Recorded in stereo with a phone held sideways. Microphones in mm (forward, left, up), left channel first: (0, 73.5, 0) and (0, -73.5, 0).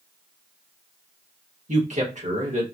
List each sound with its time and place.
1.7 s a man speaking: 55° right (ahead or behind), 1.5 m